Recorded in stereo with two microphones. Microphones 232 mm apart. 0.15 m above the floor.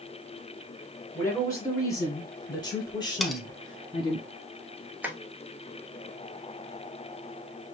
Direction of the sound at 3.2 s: Centre (ahead or behind).